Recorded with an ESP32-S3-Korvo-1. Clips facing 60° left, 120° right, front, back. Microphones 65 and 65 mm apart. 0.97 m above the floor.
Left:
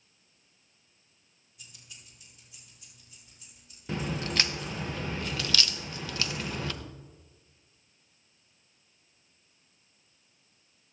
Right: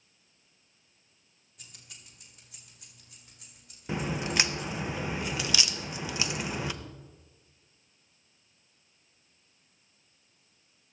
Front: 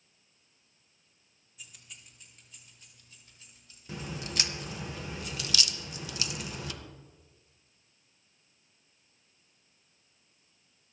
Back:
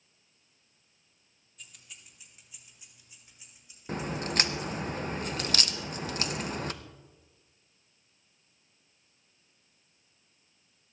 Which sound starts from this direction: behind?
A crack, at 3.9 s.